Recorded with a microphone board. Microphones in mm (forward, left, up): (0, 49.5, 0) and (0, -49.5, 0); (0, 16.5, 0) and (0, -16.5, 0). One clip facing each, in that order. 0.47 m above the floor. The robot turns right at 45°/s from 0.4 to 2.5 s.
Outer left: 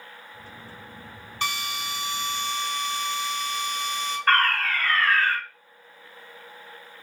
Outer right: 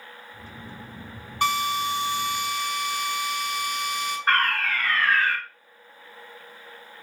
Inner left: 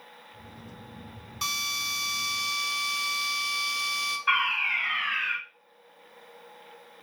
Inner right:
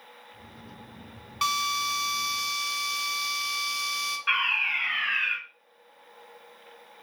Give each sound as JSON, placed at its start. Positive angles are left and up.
{"t": 1.4, "sound": "a drill", "azimuth_deg": -60, "distance_m": 1.3}
{"t": 4.3, "sound": "a fire alarm", "side_deg": -20, "distance_m": 2.0}